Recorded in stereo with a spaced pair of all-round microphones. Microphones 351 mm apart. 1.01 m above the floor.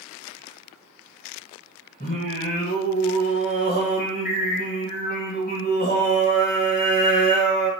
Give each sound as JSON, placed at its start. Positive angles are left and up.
{"t": 2.0, "sound": "singing", "side_deg": 30, "distance_m": 1.5}